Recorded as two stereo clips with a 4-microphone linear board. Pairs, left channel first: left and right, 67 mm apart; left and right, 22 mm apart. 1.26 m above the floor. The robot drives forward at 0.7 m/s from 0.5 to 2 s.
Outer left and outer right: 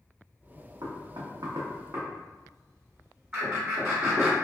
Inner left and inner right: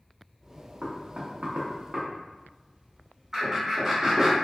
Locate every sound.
0.8 s knocking: 65° right (ahead or behind), 0.6 m; by 4.3 s 45° right (ahead or behind), 0.8 m
3.3 s laughter: 10° right (ahead or behind), 1.8 m